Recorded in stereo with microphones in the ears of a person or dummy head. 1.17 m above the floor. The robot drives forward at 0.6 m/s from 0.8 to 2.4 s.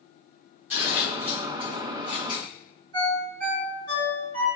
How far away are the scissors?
About 1.0 m.